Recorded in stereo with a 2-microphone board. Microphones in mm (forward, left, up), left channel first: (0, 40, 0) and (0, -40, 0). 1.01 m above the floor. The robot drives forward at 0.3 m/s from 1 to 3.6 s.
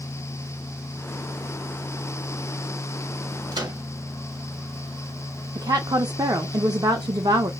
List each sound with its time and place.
3.5 s a microwave: 55° right (ahead or behind), 1.5 m
5.5 s a woman speaking: 55° right (ahead or behind), 0.5 m